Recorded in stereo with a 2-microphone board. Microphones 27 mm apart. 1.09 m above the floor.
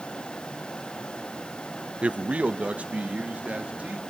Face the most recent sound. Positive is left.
turn(degrees=-70)  # may be behind; listen again after turning